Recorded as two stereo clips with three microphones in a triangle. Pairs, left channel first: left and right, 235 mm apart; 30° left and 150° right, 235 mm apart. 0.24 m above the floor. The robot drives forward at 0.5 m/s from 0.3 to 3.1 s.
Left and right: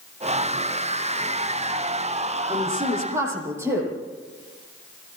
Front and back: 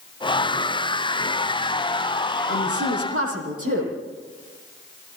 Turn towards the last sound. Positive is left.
turn(degrees=-170)